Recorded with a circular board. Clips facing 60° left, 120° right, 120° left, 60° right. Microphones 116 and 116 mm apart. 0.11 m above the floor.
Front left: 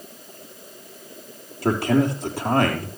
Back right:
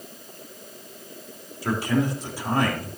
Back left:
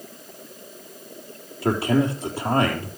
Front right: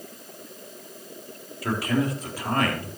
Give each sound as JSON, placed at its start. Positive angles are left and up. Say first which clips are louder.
{"t": 1.6, "sound": "a man speaking", "louder": "front left 4 dB, back left 4 dB", "azimuth_deg": 65, "distance_m": 3.0}